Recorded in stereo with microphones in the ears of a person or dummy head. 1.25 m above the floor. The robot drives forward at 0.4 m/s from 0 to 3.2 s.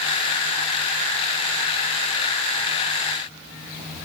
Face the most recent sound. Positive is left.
No sound to turn to.